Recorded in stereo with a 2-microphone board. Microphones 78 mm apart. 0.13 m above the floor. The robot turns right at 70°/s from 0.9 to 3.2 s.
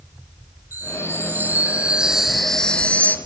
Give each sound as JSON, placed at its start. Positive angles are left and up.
{"t": 0.7, "sound": "a chime", "side_deg": -25, "distance_m": 1.0}